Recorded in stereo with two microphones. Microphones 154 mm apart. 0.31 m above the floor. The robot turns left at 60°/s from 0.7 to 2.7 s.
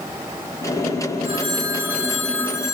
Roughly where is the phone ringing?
Behind right.